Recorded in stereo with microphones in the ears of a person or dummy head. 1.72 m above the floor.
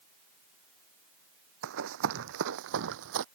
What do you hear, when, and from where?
1.6 s running footsteps: 60° right (ahead or behind); by 3.2 s 55° right (ahead or behind)